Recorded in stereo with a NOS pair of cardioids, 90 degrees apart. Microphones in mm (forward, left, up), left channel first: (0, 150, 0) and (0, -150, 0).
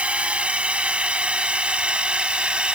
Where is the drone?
5° right.